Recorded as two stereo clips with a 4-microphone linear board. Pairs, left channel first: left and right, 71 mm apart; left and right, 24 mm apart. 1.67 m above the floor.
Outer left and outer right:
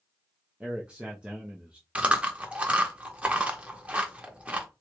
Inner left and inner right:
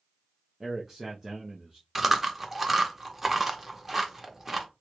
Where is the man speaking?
15° right (ahead or behind), 0.6 m.